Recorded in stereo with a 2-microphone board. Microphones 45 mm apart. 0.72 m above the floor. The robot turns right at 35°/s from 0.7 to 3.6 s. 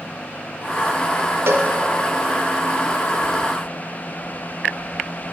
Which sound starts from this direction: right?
A cowbell, at 1.5 s.